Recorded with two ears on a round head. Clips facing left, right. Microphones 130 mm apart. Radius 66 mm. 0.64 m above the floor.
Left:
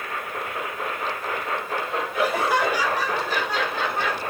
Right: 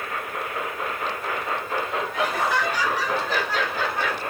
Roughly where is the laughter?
Centre.